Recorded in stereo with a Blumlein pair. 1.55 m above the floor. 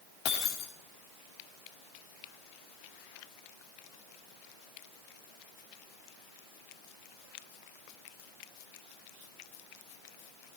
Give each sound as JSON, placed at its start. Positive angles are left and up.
{"t": 0.2, "sound": "breaking glass", "azimuth_deg": 40, "distance_m": 2.5}